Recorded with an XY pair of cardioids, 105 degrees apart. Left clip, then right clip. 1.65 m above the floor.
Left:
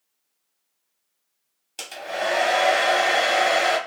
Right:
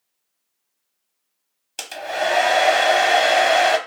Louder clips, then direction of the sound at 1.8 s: Right 4 dB; 35° right.